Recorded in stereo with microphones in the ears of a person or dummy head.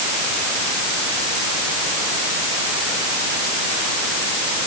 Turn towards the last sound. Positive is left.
No sound to turn to.